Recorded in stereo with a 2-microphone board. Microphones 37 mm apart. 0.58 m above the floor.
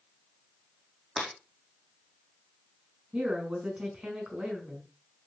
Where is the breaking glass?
5° right (ahead or behind), 4.5 m.